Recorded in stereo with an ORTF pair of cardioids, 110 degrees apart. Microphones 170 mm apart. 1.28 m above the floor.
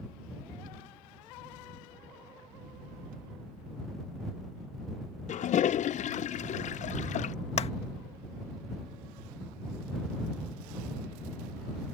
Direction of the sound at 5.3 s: 45° left.